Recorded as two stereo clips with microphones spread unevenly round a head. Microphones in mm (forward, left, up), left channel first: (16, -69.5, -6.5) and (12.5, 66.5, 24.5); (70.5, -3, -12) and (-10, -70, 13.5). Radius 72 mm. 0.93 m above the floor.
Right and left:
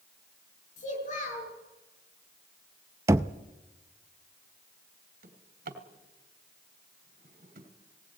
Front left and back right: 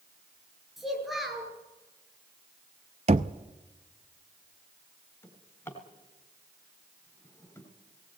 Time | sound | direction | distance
0.8 | a child speaking | 55° right | 8.5 m
3.1 | knocking | 165° left | 0.5 m
5.2 | a drawer | 120° left | 2.5 m